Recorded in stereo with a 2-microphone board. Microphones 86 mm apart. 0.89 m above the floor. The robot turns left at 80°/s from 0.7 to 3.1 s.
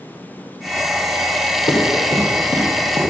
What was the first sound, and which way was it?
Running footsteps, 55° left (ahead or behind).